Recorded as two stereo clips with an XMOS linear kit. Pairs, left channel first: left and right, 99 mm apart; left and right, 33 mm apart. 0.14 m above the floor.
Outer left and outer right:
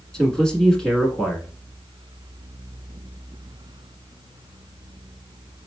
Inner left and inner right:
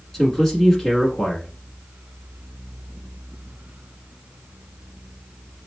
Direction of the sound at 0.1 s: 5° left (ahead or behind).